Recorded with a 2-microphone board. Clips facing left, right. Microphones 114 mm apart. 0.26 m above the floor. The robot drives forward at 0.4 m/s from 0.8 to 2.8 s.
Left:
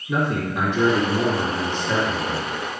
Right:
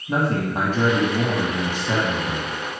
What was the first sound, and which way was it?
A man speaking, 50° right (ahead or behind).